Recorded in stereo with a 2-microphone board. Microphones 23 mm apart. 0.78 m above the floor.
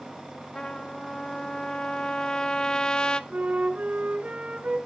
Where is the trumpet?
35° left (ahead or behind), 0.6 m.